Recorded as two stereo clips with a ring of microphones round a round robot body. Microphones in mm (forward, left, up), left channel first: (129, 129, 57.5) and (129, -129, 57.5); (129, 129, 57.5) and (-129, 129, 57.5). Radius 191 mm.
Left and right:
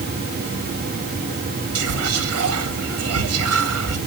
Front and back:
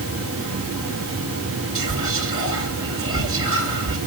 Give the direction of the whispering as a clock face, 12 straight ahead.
3 o'clock.